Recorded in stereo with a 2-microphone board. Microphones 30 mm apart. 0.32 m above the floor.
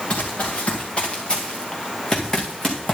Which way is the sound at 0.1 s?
40° left (ahead or behind).